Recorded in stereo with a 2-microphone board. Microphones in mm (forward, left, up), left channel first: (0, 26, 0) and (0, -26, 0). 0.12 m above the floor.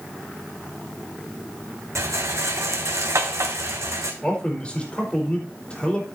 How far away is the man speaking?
About 4.5 m.